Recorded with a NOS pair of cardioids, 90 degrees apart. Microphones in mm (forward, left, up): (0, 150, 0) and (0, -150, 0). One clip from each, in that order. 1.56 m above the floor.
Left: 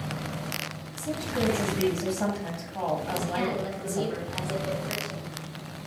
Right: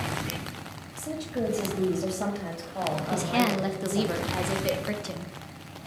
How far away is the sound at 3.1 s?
About 0.5 m.